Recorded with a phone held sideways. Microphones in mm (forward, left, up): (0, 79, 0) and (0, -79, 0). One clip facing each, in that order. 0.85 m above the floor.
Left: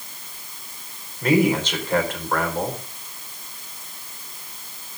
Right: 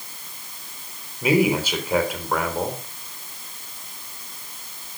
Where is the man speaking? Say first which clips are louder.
Left 1 dB; 10° right (ahead or behind), 3.5 m.